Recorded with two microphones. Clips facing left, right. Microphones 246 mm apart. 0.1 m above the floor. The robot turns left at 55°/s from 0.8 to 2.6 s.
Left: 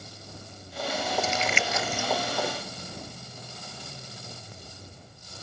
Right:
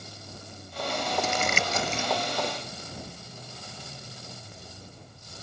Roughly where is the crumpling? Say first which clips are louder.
Even; right.